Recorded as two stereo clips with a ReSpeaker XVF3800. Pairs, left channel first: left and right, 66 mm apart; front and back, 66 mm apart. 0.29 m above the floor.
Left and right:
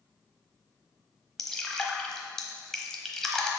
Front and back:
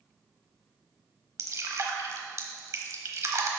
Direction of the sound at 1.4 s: 170° left.